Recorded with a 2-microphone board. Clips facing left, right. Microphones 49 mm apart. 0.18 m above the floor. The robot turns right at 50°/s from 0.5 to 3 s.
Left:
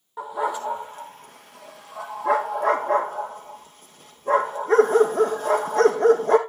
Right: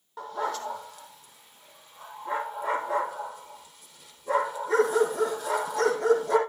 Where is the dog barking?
10° left (ahead or behind), 2.0 m; by 6.4 s 45° left (ahead or behind), 2.0 m.